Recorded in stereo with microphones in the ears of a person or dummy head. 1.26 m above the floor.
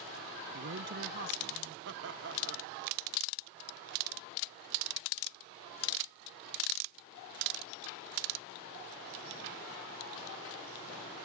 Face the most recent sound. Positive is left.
turn(degrees=-60)  # may be behind; listen again after turning